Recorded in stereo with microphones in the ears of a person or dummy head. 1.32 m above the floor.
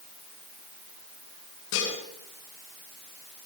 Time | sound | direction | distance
1.7 | dishes clattering | 65° left (ahead or behind) | 9 m